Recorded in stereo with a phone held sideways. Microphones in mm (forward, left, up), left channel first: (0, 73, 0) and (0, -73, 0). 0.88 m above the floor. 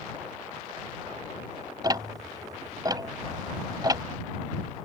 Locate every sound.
1.8 s ticking: 30° right (ahead or behind)